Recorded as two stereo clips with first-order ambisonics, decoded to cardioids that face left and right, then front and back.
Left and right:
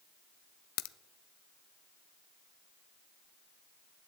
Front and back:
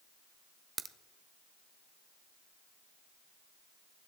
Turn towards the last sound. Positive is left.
turn(degrees=105)